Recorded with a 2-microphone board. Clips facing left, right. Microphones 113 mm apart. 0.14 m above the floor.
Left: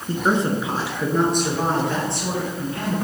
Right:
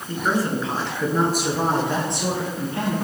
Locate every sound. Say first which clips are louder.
0.1 s a woman speaking: left 2 dB; 35° left (ahead or behind), 1.4 m; by 2.9 s 30° right (ahead or behind), 3 m